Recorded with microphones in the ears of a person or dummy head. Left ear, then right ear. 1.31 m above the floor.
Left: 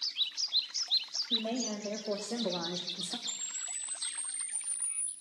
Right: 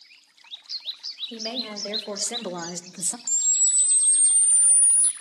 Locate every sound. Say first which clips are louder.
1.3 s a woman speaking: even; 55° right (ahead or behind), 2.5 m; by 3.2 s 60° right (ahead or behind), 0.7 m
3.3 s a camera shutter: right 15 dB; 45° right (ahead or behind), 0.7 m